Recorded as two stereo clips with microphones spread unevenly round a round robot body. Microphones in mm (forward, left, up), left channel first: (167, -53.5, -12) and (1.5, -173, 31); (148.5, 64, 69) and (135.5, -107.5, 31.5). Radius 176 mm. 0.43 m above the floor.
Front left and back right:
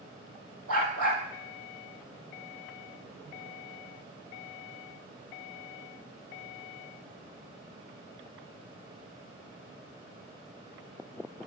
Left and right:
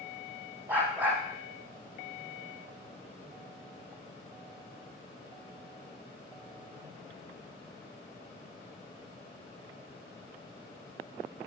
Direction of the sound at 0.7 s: Straight behind.